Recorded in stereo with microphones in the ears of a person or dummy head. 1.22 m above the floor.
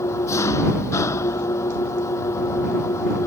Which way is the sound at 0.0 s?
15° left (ahead or behind).